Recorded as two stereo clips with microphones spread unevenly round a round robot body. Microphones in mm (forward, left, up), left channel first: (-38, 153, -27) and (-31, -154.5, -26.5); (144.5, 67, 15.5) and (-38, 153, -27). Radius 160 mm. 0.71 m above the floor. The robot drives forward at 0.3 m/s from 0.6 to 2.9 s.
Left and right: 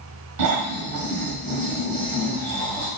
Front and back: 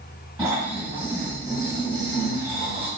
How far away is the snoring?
About 1.6 m.